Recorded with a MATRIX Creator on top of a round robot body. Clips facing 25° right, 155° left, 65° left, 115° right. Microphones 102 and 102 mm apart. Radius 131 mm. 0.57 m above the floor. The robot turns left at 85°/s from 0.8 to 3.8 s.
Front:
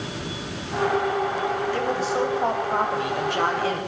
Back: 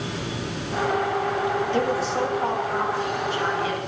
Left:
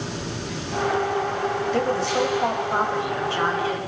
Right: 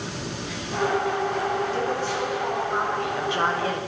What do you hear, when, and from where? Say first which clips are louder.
1.7 s a woman speaking: back 1 dB, left 4 dB; 95° left, 4.5 m; by 3.8 s 85° right, 4.5 m